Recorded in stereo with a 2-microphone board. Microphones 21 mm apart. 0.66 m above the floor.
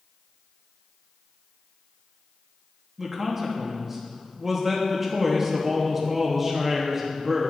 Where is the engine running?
I don't hear an engine running.